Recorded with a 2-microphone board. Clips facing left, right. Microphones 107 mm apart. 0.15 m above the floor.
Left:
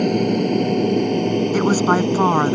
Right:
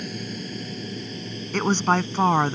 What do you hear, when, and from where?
0.0 s an aircraft: 60° left (ahead or behind); by 2.5 s 65° left (ahead or behind)
1.5 s a woman speaking: 10° left (ahead or behind)